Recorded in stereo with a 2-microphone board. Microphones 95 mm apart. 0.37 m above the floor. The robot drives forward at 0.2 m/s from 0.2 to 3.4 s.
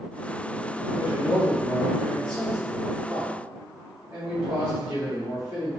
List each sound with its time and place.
1.0 s a man speaking: 35° right (ahead or behind), 1.5 m; by 5.7 s 30° right (ahead or behind), 1.7 m